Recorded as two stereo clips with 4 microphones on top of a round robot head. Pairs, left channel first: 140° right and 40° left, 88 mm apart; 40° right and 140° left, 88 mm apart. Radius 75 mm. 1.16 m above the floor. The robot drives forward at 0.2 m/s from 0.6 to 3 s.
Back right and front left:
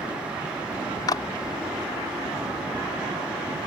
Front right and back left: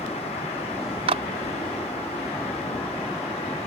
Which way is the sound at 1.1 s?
165° left.